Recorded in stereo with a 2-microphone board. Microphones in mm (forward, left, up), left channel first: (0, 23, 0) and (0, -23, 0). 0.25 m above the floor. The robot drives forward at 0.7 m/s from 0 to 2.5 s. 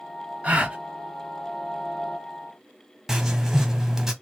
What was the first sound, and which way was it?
A gasp, 25° right (ahead or behind).